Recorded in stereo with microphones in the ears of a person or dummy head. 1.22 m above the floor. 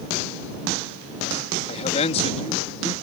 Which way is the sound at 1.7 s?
40° left (ahead or behind).